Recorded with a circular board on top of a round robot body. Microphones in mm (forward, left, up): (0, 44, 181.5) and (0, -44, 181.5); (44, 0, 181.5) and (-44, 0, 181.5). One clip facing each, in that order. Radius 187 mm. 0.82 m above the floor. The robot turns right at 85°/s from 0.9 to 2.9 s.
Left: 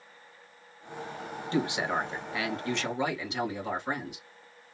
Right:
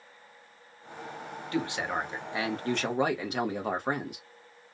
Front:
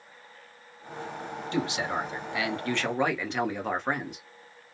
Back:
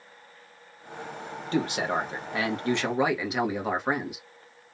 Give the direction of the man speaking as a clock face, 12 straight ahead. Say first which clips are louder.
Left 2 dB, back 3 dB; 7 o'clock.